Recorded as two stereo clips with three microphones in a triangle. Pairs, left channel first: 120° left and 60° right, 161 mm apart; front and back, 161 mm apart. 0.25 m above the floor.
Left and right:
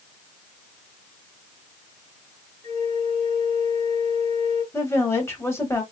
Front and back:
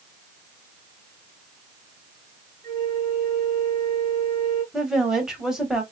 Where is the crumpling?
I don't hear crumpling.